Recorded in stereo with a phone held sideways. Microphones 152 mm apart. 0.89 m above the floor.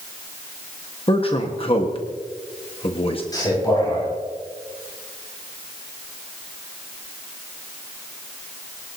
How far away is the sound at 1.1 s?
About 1.2 m.